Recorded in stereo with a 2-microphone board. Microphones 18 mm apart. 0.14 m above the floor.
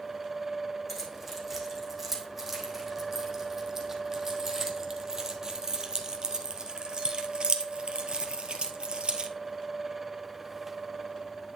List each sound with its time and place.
0.9 s keys jangling: 10° right (ahead or behind), 4.5 m; by 9.3 s 65° right (ahead or behind), 2.0 m